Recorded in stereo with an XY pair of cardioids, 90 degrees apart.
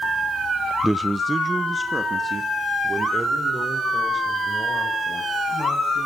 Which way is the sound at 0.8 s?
10° right.